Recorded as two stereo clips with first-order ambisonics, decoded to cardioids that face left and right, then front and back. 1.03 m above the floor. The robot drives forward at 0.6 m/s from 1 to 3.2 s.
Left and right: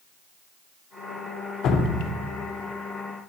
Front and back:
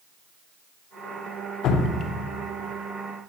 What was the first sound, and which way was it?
Dripping, 40° left.